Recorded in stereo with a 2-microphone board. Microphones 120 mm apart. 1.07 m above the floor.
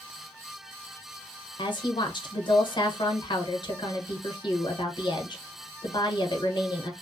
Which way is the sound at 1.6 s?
45° left (ahead or behind).